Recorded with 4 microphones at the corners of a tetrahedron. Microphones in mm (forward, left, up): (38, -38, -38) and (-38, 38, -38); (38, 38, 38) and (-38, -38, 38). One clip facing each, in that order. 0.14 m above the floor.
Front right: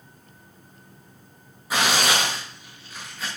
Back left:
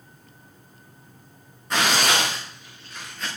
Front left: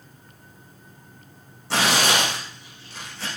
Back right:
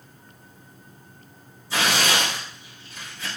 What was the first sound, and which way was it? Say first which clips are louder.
Tearing paper: even, front left 2 dB; 40° left.